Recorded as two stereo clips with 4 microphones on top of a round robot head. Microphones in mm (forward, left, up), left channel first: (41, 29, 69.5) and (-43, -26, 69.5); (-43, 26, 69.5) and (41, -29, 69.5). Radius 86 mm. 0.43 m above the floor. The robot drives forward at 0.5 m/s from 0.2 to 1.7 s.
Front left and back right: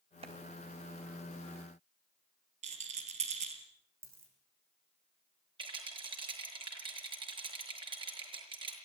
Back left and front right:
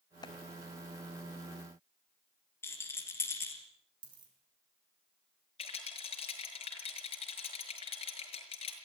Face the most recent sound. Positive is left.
turn(degrees=175)